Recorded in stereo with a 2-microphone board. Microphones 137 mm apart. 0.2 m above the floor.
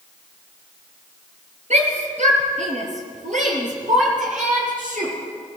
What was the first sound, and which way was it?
A shout, 60° right (ahead or behind).